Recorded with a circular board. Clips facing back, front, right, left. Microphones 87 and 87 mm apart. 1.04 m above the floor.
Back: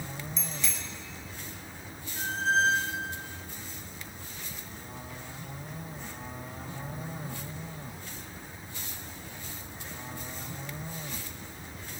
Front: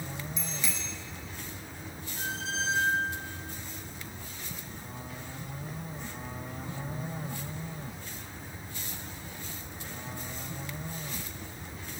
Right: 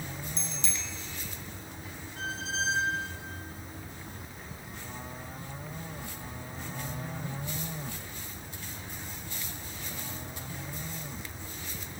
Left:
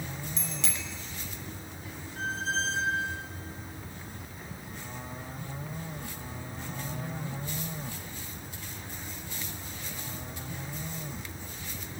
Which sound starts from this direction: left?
A bicycle bell, at 0.4 s.